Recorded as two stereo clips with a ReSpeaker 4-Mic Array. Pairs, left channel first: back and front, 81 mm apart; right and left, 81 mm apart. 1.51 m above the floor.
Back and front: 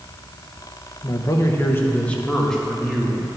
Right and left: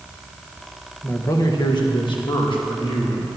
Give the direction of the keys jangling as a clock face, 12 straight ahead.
No keys jangling in this recording.